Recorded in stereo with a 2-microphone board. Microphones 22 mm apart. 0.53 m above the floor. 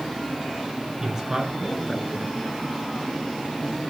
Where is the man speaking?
25° right (ahead or behind), 3.5 m.